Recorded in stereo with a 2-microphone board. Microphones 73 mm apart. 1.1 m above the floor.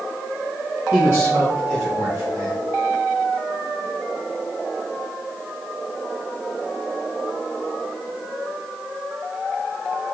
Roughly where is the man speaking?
Right.